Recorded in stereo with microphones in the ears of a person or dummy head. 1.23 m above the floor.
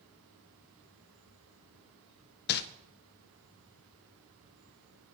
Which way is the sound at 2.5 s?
50° left (ahead or behind).